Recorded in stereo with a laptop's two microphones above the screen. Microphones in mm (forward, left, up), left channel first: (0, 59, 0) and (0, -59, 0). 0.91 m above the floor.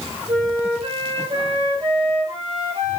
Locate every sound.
0.3 s a flute: 50° right (ahead or behind), 4 m